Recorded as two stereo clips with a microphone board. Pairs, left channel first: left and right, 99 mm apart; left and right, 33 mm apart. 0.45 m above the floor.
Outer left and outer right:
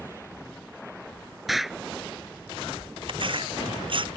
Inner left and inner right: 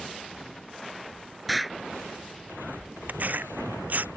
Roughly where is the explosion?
Centre.